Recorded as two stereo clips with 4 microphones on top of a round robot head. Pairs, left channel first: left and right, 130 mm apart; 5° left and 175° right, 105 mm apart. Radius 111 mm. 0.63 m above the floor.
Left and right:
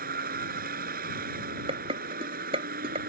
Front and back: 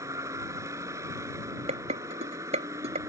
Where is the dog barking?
I don't hear a dog barking.